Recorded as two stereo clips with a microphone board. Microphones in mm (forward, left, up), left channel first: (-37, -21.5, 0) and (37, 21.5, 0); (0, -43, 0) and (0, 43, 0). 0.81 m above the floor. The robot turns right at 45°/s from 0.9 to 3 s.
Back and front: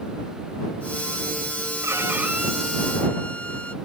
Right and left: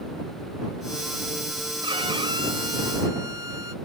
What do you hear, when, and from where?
1.8 s a violin: 85° left; by 3.8 s 135° left